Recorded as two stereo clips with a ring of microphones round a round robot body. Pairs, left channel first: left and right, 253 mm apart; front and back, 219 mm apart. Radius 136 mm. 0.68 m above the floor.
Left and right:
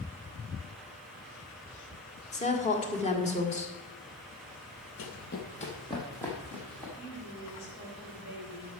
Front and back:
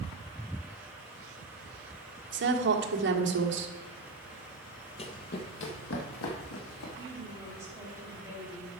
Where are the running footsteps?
60° left, 1.3 m; by 6.9 s 5° left, 3.5 m.